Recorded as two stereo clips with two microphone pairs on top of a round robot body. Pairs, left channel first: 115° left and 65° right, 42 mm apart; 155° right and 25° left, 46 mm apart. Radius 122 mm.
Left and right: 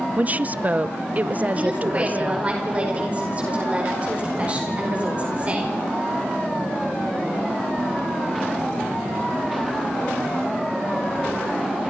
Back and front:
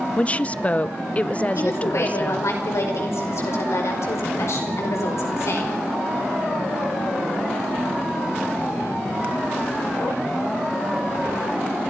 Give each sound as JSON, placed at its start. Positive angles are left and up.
{"t": 0.2, "sound": "a woman speaking", "azimuth_deg": -110, "distance_m": 0.7}
{"t": 1.6, "sound": "a woman speaking", "azimuth_deg": -130, "distance_m": 5.0}